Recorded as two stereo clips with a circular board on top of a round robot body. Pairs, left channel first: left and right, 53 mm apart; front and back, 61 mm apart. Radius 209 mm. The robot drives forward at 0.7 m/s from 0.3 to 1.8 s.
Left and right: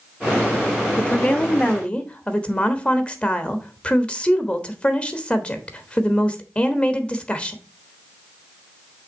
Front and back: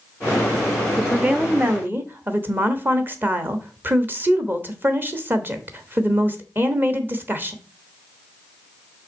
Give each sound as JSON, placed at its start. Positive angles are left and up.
{"t": 1.0, "sound": "a woman speaking", "azimuth_deg": 115, "distance_m": 1.3}